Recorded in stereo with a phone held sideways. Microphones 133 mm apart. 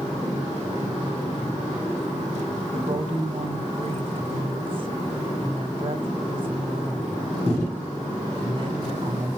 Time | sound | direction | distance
2.7 | a woman speaking | 45° right (ahead or behind) | 2.5 m